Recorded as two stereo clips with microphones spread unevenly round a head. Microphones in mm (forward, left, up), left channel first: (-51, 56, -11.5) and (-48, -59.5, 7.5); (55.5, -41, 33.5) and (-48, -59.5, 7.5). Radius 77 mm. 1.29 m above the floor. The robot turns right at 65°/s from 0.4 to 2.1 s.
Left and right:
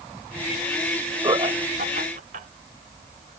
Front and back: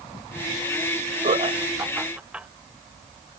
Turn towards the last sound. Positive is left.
turn(degrees=-85)